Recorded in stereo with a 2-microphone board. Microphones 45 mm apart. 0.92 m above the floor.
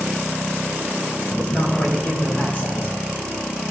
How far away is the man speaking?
About 4 m.